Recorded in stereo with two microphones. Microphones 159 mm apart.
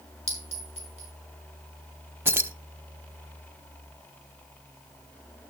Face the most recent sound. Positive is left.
turn(degrees=-15)  # may be behind; listen again after turning